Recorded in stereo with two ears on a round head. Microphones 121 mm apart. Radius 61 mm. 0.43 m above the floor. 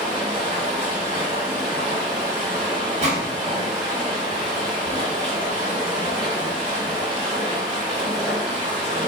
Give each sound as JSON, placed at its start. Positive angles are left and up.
{"t": 0.0, "sound": "running water", "side_deg": -40, "distance_m": 1.9}
{"t": 3.0, "sound": "a gunshot", "side_deg": -50, "distance_m": 1.4}